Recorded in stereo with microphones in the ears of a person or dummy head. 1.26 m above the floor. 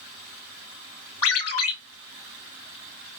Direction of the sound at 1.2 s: 80° left.